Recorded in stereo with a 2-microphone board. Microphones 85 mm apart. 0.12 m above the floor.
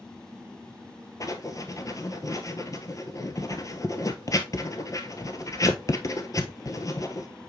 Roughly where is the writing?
Left.